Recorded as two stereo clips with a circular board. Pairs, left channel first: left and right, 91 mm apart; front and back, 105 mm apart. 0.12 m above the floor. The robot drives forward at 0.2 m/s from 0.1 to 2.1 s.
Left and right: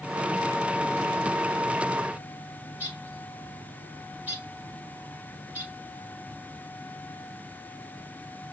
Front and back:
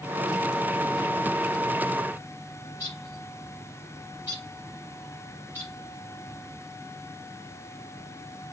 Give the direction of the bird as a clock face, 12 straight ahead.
5 o'clock.